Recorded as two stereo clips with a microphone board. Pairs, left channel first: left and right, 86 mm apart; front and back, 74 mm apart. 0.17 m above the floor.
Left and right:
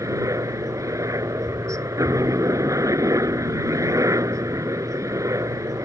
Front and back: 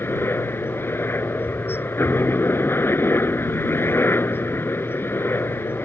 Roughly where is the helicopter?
Ahead right.